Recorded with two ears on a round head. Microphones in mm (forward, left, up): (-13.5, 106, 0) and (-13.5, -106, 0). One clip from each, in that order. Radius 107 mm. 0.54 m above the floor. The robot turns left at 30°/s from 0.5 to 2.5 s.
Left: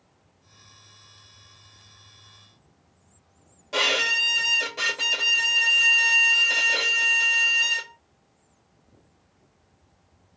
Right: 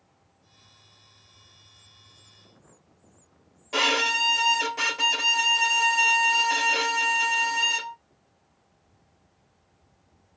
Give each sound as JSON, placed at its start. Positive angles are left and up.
{"t": 3.7, "sound": "a violin", "side_deg": -5, "distance_m": 1.3}